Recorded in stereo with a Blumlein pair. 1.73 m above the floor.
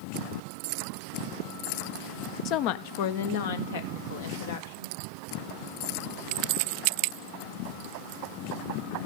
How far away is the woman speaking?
About 0.5 m.